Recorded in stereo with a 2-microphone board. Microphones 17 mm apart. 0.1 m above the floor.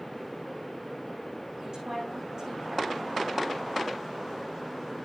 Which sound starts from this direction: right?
A woman speaking, at 1.6 s.